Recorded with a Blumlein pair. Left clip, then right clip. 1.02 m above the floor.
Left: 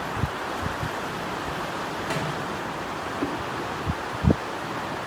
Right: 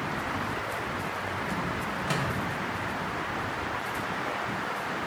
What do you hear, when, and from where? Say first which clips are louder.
2.1 s a microwave: left 1 dB; 10° right, 0.6 m